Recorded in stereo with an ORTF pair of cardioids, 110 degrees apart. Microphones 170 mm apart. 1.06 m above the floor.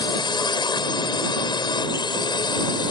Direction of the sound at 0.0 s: 30° left.